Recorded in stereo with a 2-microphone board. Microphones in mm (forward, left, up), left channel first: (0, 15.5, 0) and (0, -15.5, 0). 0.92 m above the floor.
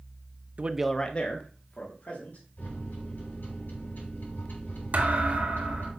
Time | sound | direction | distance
0.6 | a man speaking | 40° right (ahead or behind) | 0.6 m
2.6 | a microwave | 80° left | 5 m
4.9 | a thud | 55° right (ahead or behind) | 1.5 m